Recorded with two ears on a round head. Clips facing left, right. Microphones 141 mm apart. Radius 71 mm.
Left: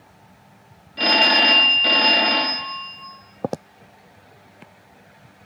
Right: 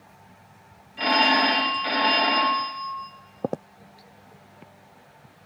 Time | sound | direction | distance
1.0 | a phone ringing | 50° left (ahead or behind) | 1.0 m